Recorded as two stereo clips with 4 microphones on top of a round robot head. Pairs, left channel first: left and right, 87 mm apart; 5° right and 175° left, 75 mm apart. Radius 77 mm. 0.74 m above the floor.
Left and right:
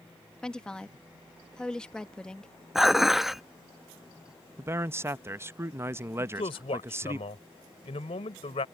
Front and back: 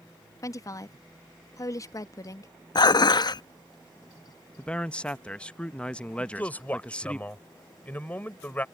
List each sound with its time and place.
0.4 s a woman speaking: 15° left
2.8 s dishes clattering: straight ahead
4.6 s a man speaking: 70° right
6.2 s a man speaking: 65° left